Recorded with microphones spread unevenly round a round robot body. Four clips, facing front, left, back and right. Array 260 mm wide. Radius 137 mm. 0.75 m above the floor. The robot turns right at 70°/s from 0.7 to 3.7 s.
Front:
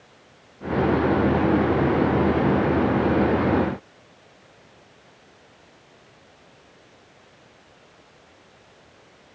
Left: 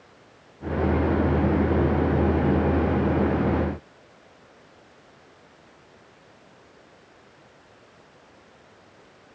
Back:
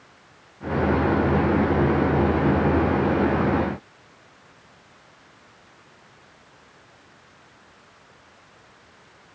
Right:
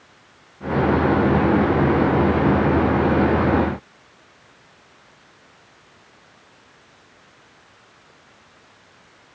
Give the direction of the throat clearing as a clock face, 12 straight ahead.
I don't hear throat clearing.